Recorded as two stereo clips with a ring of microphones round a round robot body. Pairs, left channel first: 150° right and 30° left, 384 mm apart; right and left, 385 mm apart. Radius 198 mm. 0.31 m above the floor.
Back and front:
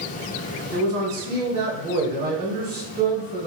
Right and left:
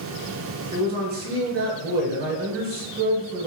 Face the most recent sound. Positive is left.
turn(degrees=60)